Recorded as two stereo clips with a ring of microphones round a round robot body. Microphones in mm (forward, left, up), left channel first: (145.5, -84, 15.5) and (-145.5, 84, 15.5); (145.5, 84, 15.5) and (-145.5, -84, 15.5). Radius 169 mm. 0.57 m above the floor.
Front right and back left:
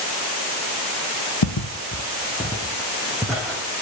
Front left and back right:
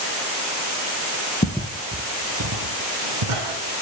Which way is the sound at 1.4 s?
35° right.